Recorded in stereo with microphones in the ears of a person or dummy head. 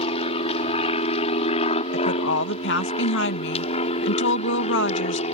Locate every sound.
0.0 s an aircraft: 30° left (ahead or behind); by 5.3 s 35° left (ahead or behind)
1.9 s a woman speaking: 65° left (ahead or behind)